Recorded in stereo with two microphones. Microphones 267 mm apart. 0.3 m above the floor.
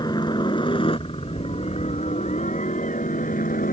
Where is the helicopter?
15° left (ahead or behind); by 3.7 s 30° left (ahead or behind).